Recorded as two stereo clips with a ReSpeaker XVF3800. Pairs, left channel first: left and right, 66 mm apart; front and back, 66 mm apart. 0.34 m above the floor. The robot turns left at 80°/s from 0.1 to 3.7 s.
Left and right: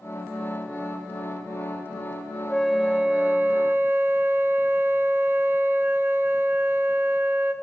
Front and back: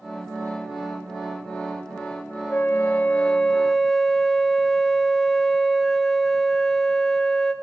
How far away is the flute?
About 0.6 m.